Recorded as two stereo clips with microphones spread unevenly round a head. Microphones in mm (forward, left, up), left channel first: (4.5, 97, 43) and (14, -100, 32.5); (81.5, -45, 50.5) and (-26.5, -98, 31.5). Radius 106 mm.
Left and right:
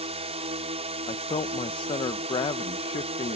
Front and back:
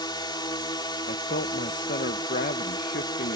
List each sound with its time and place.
0.0 s a drone: 25° right
1.1 s a man speaking: 25° left